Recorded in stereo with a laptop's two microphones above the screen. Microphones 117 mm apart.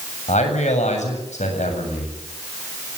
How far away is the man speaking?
About 8 m.